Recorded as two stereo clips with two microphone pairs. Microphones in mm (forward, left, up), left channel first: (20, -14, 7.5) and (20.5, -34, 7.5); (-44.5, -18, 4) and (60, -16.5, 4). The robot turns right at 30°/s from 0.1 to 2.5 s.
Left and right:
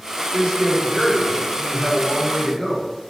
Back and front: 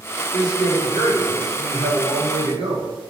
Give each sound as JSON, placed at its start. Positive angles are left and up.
{"t": 0.3, "sound": "a man speaking", "azimuth_deg": -45, "distance_m": 1.1}